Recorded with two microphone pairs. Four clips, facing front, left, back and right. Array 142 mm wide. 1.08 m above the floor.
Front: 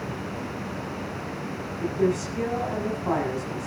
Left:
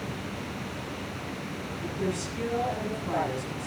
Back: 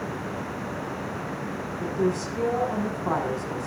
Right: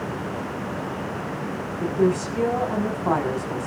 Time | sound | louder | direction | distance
1.8 | a woman speaking | right 11 dB, front 2 dB | 90° right | 6 m